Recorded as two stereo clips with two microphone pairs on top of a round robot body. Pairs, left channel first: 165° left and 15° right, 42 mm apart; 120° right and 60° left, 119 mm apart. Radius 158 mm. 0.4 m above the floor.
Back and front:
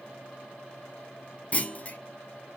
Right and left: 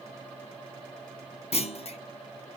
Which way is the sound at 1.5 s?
145° right.